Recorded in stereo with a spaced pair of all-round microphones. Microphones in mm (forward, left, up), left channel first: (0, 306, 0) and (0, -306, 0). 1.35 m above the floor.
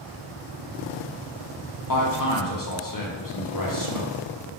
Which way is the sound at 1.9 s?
35° left (ahead or behind).